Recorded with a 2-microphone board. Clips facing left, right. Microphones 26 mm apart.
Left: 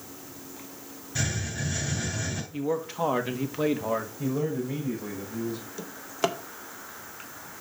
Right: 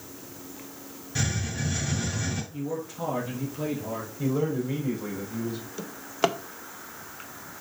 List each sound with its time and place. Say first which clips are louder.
1.1 s a hiss: right 1 dB; 10° right (ahead or behind), 5 m
2.5 s a man speaking: left 4 dB; 45° left (ahead or behind), 1.5 m
4.2 s a man speaking: right 2 dB; 25° right (ahead or behind), 4.5 m
5.8 s a drawer: right 3 dB; 15° right (ahead or behind), 0.6 m